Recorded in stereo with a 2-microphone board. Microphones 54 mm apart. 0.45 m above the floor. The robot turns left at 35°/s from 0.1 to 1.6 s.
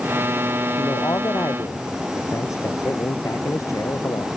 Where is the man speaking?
70° left (ahead or behind); by 4.3 s 75° left (ahead or behind).